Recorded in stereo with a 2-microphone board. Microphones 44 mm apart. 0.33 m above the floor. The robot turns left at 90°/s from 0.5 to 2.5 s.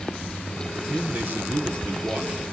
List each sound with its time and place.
0.9 s a man speaking: 20° right, 6 m; by 2.4 s 155° right, 6 m